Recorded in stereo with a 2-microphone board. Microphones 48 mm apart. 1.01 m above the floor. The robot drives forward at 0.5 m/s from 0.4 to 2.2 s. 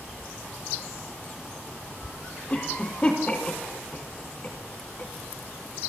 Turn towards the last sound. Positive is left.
turn(degrees=25)  # may be behind; listen again after turning